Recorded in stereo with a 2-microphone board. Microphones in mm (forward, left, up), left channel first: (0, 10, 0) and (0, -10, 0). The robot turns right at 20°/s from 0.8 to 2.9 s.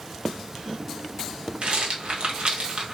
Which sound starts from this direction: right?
A rattle, at 1.6 s.